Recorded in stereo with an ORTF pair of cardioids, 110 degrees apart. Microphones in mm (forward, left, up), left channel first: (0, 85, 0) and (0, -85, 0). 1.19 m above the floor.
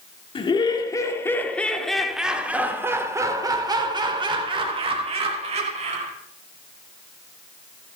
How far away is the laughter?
About 3 m.